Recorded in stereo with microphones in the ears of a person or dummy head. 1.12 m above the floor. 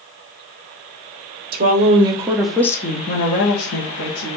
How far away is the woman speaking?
About 0.9 m.